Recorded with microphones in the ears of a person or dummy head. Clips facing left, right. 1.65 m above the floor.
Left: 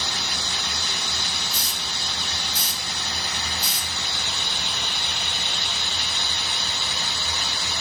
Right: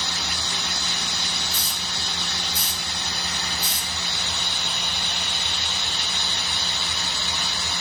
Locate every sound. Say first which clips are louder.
1.5 s a hiss: even; 50° left (ahead or behind), 1.0 m